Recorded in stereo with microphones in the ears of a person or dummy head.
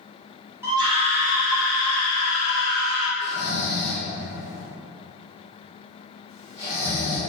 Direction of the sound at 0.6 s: 15° right (ahead or behind).